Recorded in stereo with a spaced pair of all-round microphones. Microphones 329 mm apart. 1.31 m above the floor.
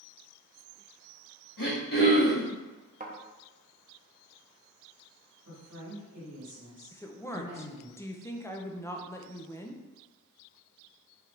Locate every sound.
1.6 s throat clearing: 80° left, 1.9 m
3.0 s a thud: 25° right (ahead or behind), 0.8 m
5.5 s a woman speaking: 60° right (ahead or behind), 2 m
6.9 s a woman speaking: 10° left (ahead or behind), 0.5 m